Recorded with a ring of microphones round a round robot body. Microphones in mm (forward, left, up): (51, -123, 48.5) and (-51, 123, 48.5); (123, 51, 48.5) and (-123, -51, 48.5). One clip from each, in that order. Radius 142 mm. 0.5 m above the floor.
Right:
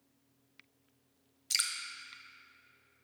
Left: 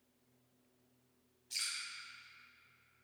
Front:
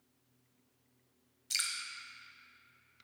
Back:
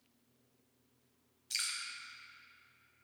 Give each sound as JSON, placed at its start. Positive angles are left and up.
{"t": 1.5, "sound": "dripping", "azimuth_deg": -50, "distance_m": 0.9}